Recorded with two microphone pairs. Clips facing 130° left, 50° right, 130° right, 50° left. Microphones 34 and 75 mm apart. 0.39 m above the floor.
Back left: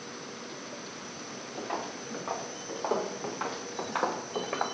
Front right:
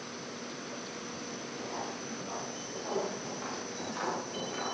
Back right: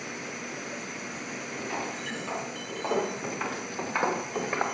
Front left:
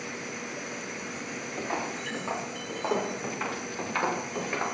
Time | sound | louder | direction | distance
1.6 | footsteps | back left 5 dB, front left 2 dB | 110° left | 4 m